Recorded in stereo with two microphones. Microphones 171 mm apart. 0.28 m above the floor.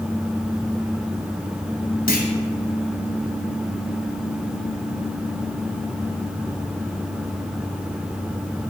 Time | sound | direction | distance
2.1 | a clunk | 60° left (ahead or behind) | 2 m